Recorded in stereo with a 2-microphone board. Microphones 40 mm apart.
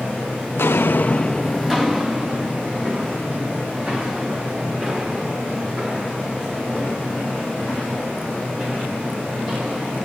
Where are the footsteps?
85° left, 0.7 m; by 10.0 s 40° right (ahead or behind), 10.5 m.